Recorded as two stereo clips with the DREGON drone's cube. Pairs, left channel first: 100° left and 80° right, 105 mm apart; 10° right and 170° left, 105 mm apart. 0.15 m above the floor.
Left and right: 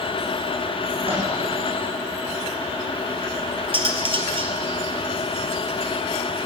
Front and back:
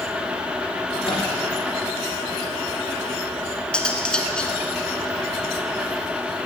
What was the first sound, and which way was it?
A microwave, 50° right.